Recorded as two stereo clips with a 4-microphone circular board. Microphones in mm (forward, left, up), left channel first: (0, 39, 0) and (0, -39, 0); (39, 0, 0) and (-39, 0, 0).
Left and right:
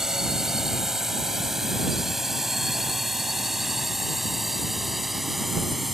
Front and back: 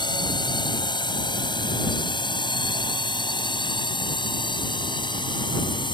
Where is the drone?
5° right.